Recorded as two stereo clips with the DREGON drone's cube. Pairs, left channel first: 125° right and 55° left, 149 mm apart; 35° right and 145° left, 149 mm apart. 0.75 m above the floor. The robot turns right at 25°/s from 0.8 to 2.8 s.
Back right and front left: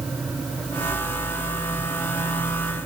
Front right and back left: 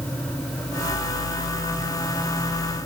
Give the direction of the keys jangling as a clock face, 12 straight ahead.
No keys jangling in this recording.